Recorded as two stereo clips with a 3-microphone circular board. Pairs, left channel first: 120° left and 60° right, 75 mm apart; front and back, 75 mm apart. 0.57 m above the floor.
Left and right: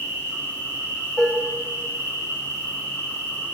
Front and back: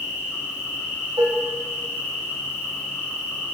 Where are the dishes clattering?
165° right, 2.0 m.